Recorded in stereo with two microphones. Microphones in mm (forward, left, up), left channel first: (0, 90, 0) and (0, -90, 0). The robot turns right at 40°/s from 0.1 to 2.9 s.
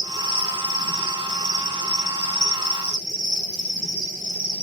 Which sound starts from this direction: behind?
An insect, at 0.0 s.